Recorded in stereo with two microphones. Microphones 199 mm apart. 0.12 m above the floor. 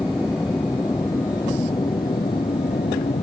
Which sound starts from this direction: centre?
An aircraft, at 0.0 s.